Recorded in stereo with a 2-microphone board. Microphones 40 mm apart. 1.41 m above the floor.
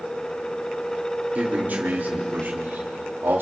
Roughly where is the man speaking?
Right.